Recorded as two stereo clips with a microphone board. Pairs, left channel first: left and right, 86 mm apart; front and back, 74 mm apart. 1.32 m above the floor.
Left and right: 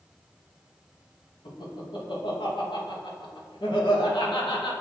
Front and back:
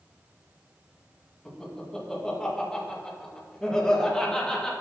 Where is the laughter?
80° left, 2 m.